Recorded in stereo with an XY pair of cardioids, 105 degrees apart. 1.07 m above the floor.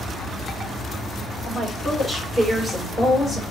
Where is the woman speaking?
30° right, 5 m; by 3.4 s 25° right, 5.5 m.